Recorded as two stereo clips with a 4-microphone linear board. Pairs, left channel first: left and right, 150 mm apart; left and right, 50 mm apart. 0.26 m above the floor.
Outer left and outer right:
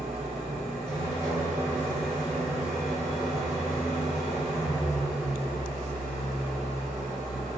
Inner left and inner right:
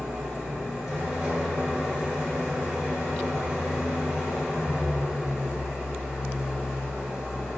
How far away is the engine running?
About 1.9 m.